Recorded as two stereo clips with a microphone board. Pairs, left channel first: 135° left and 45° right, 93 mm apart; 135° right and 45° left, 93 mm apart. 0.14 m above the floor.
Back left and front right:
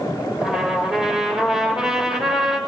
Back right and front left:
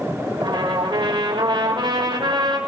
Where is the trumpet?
40° left, 5 m.